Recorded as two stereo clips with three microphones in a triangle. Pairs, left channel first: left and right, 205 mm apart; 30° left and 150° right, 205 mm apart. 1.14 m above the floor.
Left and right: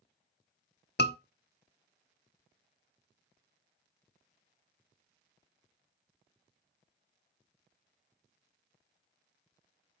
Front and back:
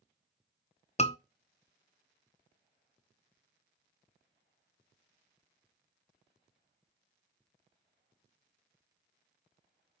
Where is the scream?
80° left, 0.7 m.